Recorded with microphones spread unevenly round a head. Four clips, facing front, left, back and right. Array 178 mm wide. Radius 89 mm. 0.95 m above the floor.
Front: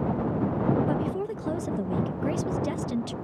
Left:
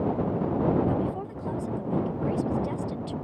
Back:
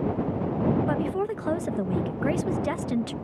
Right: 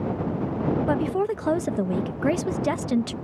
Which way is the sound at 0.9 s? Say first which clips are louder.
Right 5 dB, back 2 dB; 110° right.